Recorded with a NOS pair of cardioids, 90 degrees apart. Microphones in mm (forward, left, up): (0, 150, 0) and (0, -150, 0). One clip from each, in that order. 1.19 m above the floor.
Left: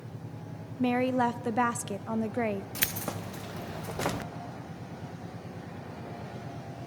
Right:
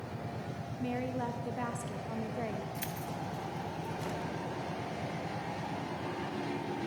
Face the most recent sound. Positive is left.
turn(degrees=65)